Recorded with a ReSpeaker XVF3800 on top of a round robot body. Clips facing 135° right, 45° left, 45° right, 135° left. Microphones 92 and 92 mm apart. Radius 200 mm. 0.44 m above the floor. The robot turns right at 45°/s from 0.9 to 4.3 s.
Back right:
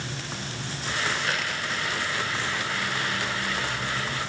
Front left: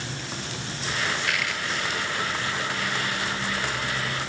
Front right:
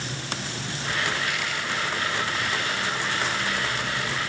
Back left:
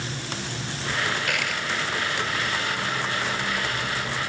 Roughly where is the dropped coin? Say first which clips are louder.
Front left 1 dB, back left 1 dB; behind.